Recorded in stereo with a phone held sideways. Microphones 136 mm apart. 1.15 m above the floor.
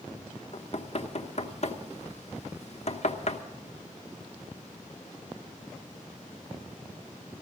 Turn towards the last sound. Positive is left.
turn(degrees=55)  # may be behind; listen again after turning